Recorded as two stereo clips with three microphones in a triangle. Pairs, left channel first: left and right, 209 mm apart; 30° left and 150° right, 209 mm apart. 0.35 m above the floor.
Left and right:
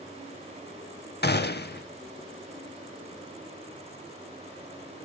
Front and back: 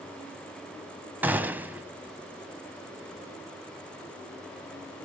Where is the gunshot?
130° left, 0.6 m.